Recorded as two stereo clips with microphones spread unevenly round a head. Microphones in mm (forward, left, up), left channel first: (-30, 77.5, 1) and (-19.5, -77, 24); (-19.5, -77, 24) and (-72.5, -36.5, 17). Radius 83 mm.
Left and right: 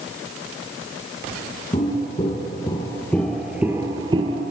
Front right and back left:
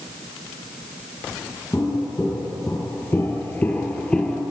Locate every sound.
1.7 s footsteps: 30° left, 2 m; by 4.4 s 110° right, 1.3 m